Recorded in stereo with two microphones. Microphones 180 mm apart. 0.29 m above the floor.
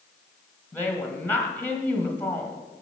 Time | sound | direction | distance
0.7 | a woman speaking | 10° left (ahead or behind) | 1.3 m